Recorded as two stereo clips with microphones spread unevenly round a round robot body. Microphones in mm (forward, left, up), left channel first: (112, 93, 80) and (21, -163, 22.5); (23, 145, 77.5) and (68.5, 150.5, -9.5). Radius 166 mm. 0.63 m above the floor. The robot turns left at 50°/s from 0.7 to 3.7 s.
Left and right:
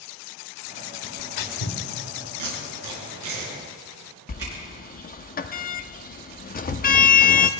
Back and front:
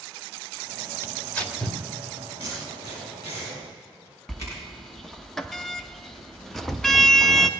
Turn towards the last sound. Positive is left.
turn(degrees=5)